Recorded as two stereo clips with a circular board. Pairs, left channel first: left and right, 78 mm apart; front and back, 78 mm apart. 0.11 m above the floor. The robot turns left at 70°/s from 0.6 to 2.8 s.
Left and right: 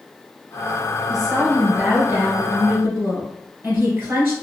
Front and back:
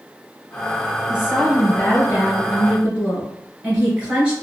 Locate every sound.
1.1 s a woman speaking: 5° left, 1.8 m; by 4.3 s 115° right, 1.8 m